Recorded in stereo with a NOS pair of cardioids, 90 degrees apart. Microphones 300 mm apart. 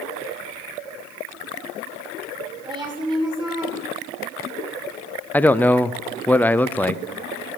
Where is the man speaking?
5° left, 0.6 m.